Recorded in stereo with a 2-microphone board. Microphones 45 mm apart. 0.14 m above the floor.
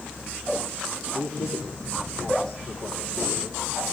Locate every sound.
1.1 s a man speaking: 70° left (ahead or behind), 9.5 m